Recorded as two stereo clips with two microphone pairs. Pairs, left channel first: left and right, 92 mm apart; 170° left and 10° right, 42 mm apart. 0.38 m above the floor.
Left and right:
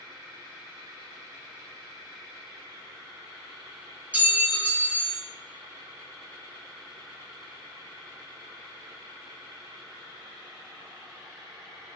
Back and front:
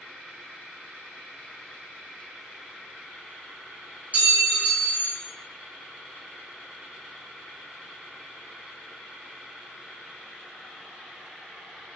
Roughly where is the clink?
Ahead right.